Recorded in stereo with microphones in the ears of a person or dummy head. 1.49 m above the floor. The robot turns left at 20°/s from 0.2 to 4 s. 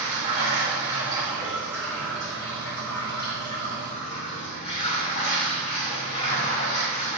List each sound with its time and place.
0.0 s running water: 135° right, 2.5 m; by 7.2 s 145° left, 2.5 m